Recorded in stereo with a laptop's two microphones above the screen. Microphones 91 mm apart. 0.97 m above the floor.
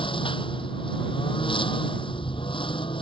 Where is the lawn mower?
65° left (ahead or behind).